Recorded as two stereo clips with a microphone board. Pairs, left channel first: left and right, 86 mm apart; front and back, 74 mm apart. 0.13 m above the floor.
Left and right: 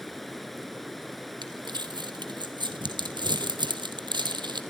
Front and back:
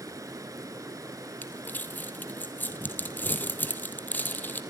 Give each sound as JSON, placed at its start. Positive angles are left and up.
{"t": 0.0, "sound": "running water", "azimuth_deg": 180, "distance_m": 0.8}
{"t": 1.4, "sound": "crumpling", "azimuth_deg": -65, "distance_m": 1.9}